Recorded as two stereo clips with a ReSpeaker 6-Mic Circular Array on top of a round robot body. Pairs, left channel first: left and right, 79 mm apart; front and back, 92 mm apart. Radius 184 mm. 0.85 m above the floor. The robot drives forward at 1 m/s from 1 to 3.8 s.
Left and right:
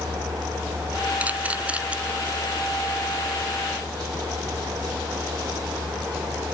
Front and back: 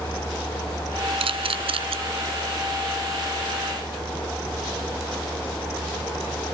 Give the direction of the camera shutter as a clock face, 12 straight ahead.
5 o'clock.